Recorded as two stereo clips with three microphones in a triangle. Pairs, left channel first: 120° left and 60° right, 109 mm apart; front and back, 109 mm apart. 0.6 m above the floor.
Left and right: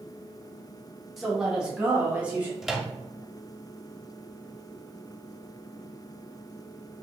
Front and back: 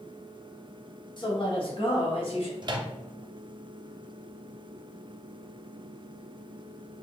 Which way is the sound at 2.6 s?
150° right.